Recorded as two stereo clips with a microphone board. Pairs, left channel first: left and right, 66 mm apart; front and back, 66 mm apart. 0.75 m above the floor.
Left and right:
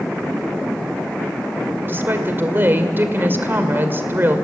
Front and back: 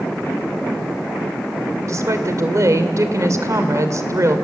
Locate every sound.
1.9 s a woman speaking: 145° right, 2.5 m